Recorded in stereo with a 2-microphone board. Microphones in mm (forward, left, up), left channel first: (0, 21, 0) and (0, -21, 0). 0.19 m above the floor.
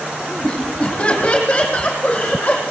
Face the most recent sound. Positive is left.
turn(degrees=45)  # may be behind; listen again after turning